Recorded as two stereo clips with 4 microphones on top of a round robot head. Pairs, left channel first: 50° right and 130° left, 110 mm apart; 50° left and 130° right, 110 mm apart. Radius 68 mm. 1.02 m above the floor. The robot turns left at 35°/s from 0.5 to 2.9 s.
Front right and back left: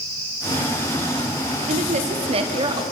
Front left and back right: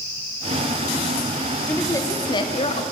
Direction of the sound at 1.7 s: 120° left.